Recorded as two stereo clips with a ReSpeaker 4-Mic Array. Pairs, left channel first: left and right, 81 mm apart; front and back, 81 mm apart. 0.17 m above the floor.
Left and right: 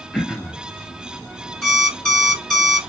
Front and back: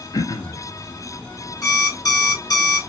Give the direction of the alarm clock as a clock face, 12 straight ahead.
12 o'clock.